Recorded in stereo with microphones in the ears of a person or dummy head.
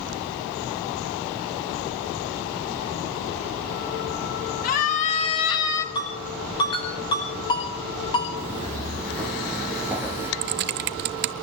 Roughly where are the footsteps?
Centre.